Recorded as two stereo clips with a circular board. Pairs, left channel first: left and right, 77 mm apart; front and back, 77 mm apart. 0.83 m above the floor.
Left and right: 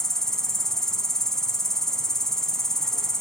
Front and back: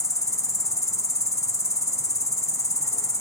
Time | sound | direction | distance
0.0 | an insect | 10° left | 0.9 m